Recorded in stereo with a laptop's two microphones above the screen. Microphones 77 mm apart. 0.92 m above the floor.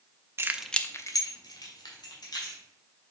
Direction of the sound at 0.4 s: 40° right (ahead or behind).